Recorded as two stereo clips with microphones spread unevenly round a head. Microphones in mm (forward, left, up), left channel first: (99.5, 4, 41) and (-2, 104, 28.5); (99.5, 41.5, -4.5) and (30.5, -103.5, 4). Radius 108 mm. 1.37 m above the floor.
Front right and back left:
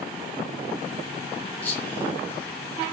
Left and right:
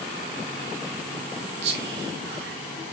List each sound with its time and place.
1.6 s whispering: 125° right, 0.9 m